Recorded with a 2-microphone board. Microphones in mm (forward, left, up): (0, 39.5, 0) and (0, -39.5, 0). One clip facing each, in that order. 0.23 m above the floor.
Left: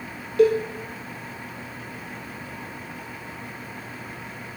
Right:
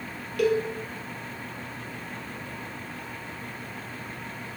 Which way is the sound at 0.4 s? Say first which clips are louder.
Left 6 dB; 30° left (ahead or behind).